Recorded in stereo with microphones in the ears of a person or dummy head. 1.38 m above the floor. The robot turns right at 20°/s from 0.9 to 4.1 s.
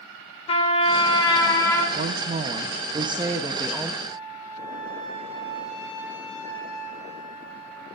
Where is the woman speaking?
45° right, 0.5 m; by 3.9 s 5° right, 0.5 m.